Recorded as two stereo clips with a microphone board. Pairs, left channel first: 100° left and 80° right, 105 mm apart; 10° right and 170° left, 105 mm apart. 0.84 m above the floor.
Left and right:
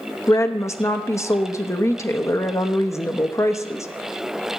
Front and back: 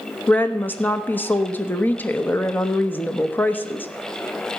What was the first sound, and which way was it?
A woman speaking, 50° left.